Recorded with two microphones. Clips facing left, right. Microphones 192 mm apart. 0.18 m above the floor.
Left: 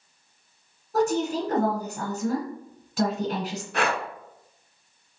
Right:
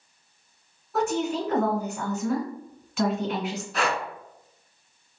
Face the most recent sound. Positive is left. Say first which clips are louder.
# left 2 dB
turn(degrees=60)  # may be behind; listen again after turning